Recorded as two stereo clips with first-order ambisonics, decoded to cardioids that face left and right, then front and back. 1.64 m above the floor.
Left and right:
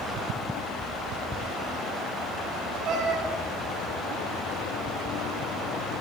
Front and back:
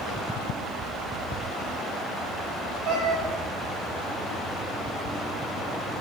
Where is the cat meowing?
140° right, 5 m.